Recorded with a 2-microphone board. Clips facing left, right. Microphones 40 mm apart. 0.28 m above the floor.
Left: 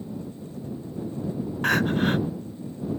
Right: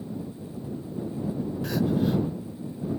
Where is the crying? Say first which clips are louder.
Left 3 dB; 60° left (ahead or behind).